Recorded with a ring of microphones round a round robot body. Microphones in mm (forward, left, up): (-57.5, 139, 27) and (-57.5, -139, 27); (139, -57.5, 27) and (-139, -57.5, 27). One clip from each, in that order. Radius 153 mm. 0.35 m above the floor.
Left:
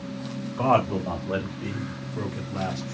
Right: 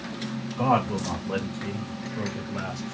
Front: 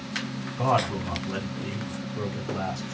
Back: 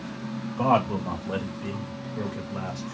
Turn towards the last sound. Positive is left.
turn(degrees=110)